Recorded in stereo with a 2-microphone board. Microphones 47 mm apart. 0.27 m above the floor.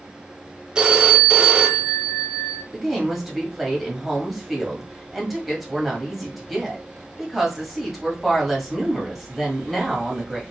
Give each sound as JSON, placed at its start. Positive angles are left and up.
{"t": 0.8, "sound": "a phone ringing", "side_deg": -15, "distance_m": 0.6}
{"t": 2.7, "sound": "a woman speaking", "side_deg": 0, "distance_m": 1.3}